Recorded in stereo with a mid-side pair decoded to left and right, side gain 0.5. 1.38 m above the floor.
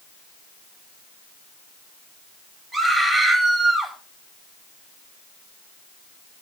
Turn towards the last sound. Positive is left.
turn(degrees=-30)